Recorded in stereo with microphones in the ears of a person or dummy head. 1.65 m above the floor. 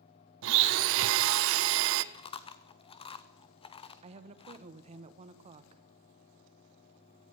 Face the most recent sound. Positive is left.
turn(degrees=-40)  # may be behind; listen again after turning